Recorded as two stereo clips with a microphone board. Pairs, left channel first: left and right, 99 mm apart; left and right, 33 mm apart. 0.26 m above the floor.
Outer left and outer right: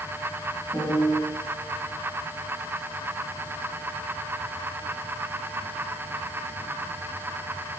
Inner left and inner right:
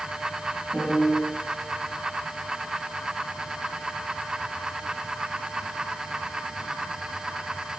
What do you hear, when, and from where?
0.7 s a piano: 30° left (ahead or behind), 3 m